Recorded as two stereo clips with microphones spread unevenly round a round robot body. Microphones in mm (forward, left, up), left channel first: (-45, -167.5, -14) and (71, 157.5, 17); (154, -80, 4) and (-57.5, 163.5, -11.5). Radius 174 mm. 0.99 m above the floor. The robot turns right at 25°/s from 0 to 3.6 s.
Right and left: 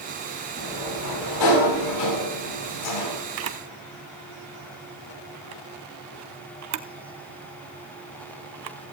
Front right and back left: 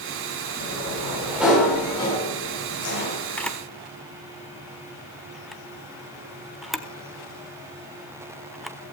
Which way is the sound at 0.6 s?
165° right.